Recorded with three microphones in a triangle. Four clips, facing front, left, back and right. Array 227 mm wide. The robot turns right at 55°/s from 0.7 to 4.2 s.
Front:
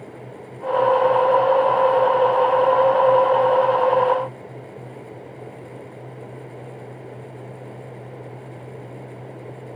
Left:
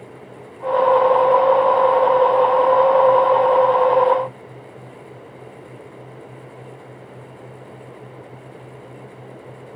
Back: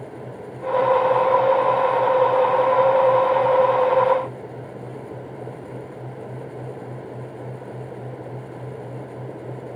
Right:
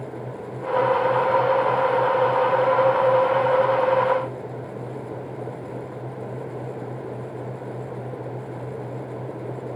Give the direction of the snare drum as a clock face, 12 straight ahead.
I don't hear a snare drum.